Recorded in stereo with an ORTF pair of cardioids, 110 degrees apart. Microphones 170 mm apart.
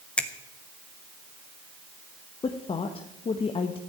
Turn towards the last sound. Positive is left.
turn(degrees=35)